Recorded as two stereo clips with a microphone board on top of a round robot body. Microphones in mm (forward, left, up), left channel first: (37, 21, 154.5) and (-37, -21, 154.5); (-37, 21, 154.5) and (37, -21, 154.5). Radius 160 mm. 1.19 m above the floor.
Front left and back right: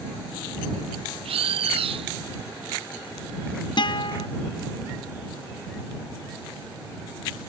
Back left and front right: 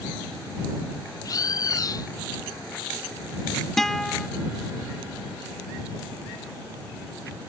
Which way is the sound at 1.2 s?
160° right.